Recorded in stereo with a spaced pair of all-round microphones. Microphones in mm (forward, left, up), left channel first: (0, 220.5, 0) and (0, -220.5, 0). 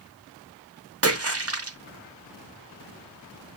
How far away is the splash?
About 0.7 m.